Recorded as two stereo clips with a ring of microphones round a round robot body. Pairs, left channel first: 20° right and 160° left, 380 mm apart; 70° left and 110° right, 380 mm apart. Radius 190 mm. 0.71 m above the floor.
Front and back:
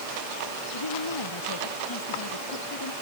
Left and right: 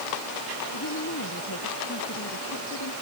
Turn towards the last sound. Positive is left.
turn(degrees=15)